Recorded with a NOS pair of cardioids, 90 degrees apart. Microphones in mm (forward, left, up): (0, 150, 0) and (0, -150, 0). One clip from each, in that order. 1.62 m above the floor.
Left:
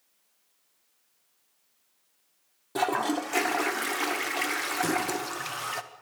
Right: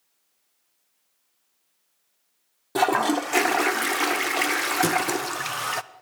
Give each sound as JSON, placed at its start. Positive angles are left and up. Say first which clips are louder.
{"t": 2.8, "sound": "a toilet flushing", "louder": "right 6 dB", "azimuth_deg": -30, "distance_m": 0.8}
{"t": 4.8, "sound": "a thud", "louder": "right 5 dB", "azimuth_deg": -65, "distance_m": 7.0}